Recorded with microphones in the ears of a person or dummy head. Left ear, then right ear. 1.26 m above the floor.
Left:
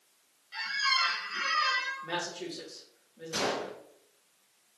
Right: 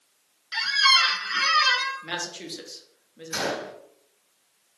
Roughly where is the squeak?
Right.